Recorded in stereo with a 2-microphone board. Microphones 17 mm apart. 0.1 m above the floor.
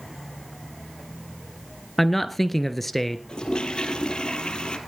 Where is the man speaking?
10° left (ahead or behind), 1.4 m.